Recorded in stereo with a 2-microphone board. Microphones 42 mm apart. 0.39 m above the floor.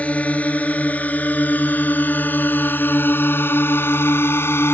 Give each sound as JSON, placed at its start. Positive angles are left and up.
{"t": 0.0, "sound": "a drone", "side_deg": 30}